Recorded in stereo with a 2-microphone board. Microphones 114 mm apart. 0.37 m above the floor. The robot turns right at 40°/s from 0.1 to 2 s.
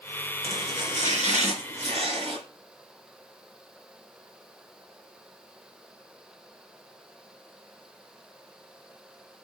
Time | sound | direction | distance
0.4 | chopping | 120° right | 3.5 m